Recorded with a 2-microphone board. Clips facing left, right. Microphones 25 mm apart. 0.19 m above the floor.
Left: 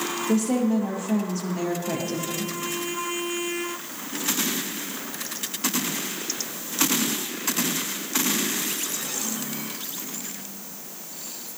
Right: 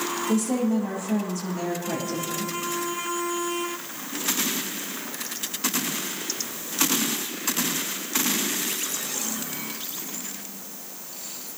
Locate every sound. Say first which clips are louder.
0.3 s a woman speaking: left 2 dB; 25° left (ahead or behind), 4.5 m